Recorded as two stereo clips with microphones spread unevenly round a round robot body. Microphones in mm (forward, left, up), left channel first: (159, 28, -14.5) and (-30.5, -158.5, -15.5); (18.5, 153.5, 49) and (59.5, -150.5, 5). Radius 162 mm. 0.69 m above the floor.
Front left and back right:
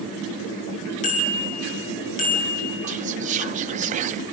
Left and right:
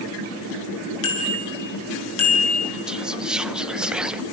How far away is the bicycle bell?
About 7.5 m.